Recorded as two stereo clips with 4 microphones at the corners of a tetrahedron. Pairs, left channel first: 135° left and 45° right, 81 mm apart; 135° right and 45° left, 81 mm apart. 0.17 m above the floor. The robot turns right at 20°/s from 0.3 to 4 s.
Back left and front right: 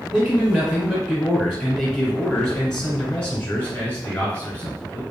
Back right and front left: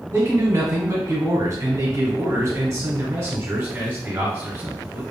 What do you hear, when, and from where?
0.1 s a man speaking: 10° left, 1.3 m; by 5.0 s 85° left, 1.3 m